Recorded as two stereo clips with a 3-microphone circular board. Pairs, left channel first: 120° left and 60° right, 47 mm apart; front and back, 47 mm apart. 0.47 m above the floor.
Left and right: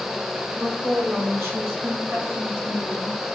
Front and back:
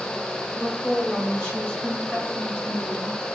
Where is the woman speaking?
90° right, 2.0 m; by 3.2 s 60° right, 5.5 m.